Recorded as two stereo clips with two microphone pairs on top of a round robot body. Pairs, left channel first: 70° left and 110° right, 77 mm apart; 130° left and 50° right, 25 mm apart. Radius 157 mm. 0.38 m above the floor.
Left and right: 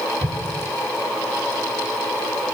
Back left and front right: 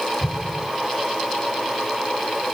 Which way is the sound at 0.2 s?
100° right.